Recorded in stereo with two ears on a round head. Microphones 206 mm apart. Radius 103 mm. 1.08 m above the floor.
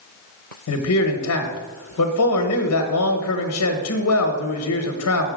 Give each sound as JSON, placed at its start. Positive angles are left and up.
{"t": 0.7, "sound": "a man speaking", "side_deg": 75, "distance_m": 1.0}